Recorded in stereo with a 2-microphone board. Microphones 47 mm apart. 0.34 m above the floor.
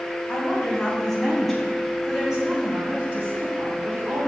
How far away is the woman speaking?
About 3 m.